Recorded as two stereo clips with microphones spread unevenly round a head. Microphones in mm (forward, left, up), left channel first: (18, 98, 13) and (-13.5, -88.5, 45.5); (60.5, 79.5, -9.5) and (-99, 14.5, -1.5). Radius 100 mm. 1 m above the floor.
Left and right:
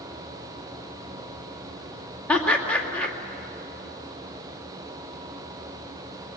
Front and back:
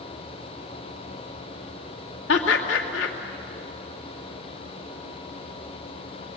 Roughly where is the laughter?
Ahead.